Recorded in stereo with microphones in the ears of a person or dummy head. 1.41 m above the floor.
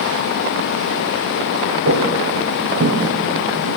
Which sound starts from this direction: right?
Footsteps, at 1.9 s.